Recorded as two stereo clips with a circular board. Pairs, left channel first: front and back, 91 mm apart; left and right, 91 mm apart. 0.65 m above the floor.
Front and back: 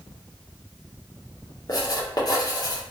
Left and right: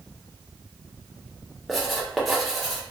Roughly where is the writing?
Ahead.